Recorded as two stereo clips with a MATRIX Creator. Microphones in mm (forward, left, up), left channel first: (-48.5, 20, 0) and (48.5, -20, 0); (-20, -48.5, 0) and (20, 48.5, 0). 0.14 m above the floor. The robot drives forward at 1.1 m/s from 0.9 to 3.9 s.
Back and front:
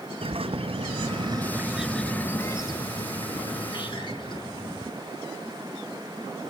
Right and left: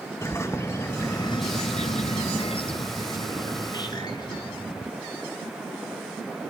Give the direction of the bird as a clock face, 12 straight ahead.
2 o'clock.